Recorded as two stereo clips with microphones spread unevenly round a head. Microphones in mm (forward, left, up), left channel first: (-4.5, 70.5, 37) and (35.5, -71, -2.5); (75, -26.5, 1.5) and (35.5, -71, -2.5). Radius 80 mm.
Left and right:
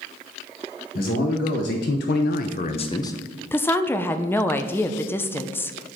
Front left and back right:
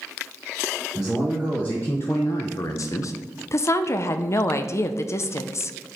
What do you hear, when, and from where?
0.9 s a man speaking: 140° left, 1.5 m; by 3.1 s 30° left, 0.8 m
3.5 s a woman speaking: 20° left, 0.6 m